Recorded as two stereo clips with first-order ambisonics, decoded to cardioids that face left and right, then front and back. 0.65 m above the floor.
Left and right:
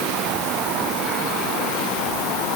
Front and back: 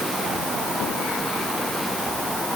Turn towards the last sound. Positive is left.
No sound to turn to.